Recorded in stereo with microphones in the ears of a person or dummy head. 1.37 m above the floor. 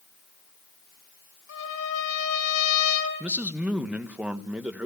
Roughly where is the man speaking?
Centre.